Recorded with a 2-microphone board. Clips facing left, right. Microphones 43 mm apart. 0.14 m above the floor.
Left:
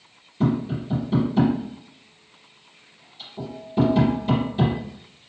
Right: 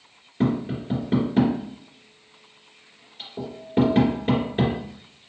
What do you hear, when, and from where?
0.4 s tapping: 50° right (ahead or behind), 2.5 m